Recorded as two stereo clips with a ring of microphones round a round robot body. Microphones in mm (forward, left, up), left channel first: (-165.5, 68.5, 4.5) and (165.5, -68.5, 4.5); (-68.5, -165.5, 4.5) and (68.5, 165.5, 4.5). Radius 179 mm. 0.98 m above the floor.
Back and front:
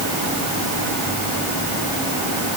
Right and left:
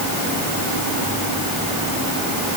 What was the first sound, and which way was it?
Only background noise.